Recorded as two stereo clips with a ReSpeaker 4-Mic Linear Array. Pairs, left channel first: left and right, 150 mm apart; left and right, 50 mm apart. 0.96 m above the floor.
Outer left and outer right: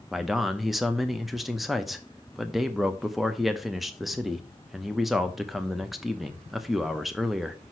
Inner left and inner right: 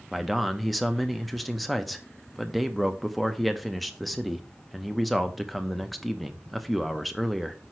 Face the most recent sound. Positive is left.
turn(degrees=0)  # may be behind; listen again after turning